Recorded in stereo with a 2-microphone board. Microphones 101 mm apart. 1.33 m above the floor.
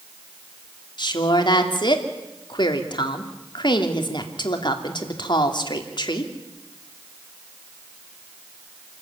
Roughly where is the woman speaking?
Left.